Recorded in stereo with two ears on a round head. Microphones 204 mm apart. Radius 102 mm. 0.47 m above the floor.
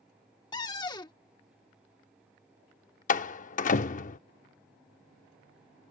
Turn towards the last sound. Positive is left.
turn(degrees=35)  # may be behind; listen again after turning